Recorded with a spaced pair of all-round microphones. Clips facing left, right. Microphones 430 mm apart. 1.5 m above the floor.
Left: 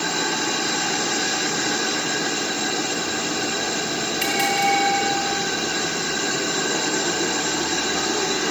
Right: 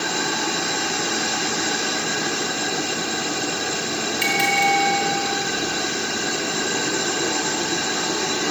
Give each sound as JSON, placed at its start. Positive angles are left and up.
{"t": 4.2, "sound": "a bell", "side_deg": 45, "distance_m": 7.5}